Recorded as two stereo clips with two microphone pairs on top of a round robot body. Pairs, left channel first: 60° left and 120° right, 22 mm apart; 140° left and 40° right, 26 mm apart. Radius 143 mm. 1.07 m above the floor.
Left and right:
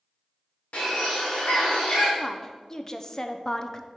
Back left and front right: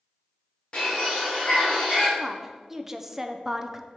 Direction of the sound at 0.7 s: 80° left.